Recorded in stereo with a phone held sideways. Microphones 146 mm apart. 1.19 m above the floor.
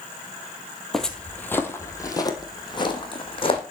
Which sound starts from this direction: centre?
Footsteps, at 0.9 s.